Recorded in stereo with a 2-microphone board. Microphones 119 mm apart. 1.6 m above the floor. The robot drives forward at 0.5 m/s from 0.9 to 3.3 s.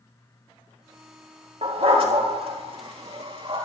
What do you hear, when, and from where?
1.6 s a dog barking: 55° right (ahead or behind), 3.5 m; by 3.6 s 45° right (ahead or behind), 3.5 m